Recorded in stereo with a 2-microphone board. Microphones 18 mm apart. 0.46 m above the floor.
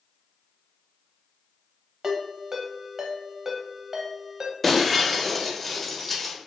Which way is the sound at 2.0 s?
30° right (ahead or behind).